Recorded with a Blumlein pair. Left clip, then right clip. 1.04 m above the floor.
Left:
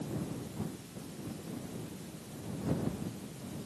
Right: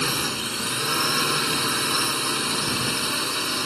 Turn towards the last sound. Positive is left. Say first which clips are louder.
# right 17 dB
turn(degrees=-45)